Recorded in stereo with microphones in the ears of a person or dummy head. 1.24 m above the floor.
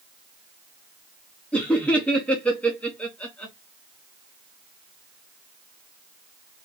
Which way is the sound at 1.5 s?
5° left (ahead or behind).